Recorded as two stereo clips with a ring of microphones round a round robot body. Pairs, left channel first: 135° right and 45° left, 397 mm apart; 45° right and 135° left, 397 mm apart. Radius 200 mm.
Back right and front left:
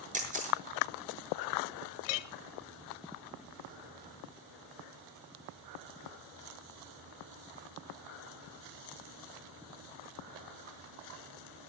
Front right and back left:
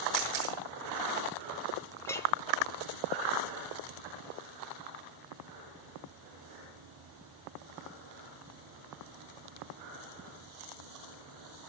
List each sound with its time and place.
0.1 s a camera shutter: 115° left, 7 m
2.0 s a clink: 130° right, 1.5 m